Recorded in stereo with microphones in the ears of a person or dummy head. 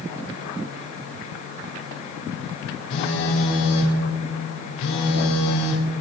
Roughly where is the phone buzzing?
Left.